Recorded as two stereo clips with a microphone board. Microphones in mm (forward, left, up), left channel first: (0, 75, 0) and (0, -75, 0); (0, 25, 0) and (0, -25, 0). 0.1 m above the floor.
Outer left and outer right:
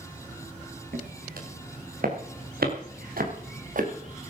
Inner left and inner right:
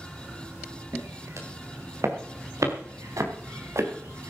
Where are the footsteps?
70° right (ahead or behind), 4.5 m; by 4.3 s 55° right (ahead or behind), 4 m.